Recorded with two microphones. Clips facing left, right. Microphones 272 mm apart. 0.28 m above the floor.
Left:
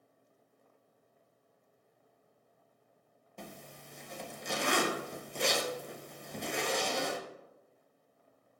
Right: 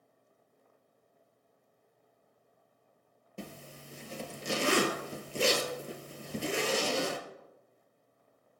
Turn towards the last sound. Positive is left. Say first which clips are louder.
# right 3 dB
turn(degrees=-35)  # may be behind; listen again after turning